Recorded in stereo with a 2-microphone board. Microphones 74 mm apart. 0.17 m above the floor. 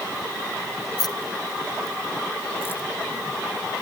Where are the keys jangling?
65° left (ahead or behind); by 2.8 s 30° left (ahead or behind).